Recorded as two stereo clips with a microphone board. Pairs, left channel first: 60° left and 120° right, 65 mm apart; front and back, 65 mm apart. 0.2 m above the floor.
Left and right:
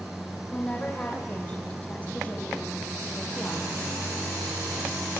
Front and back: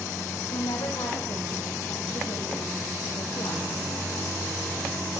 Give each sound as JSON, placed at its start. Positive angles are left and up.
{"t": 0.5, "sound": "a woman speaking", "azimuth_deg": -15, "distance_m": 8.0}